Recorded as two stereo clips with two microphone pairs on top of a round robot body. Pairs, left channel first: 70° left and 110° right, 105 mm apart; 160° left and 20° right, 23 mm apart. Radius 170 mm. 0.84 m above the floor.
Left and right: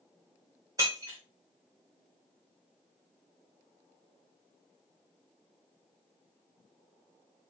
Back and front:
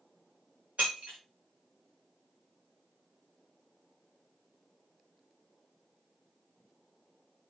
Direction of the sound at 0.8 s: 50° right.